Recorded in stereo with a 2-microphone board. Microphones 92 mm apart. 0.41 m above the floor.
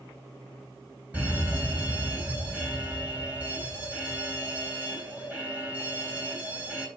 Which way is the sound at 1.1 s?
15° right (ahead or behind).